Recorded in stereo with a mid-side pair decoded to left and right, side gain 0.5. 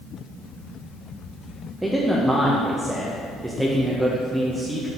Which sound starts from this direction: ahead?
A man speaking, at 1.8 s.